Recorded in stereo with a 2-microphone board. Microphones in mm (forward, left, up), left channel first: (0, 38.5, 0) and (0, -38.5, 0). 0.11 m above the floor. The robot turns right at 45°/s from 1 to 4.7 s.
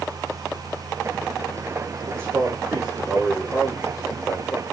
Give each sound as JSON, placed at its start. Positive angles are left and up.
{"t": 2.1, "sound": "a man speaking", "azimuth_deg": -45, "distance_m": 6.0}